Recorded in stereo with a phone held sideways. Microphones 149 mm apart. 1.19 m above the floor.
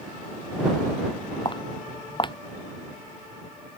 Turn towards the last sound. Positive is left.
turn(degrees=30)  # may be behind; listen again after turning